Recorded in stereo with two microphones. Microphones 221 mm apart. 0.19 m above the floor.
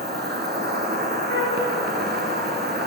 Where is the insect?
50° right (ahead or behind), 1.2 m.